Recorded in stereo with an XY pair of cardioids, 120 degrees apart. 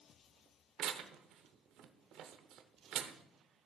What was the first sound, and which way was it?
Tearing paper, 65° right.